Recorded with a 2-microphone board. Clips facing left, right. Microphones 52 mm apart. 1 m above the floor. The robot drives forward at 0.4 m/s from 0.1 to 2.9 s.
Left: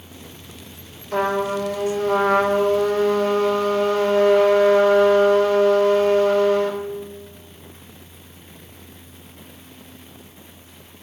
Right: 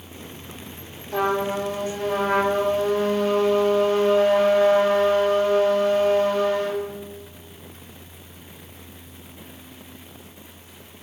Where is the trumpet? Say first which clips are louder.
Left 2 dB; 65° left (ahead or behind), 3.5 m; by 6.8 s 75° left (ahead or behind), 3.5 m.